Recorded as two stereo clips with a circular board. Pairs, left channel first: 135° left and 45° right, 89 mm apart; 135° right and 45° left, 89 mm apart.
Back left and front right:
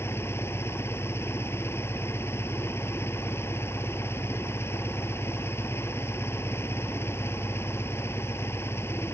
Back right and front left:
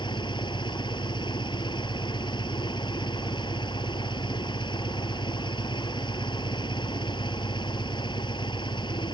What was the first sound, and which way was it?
An engine running, 165° right.